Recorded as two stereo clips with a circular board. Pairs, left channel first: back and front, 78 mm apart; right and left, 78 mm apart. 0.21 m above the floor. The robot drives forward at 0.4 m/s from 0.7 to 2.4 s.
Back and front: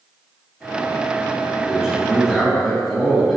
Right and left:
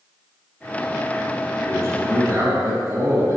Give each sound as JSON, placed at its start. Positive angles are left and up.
{"t": 1.6, "sound": "a man speaking", "azimuth_deg": 75, "distance_m": 2.0}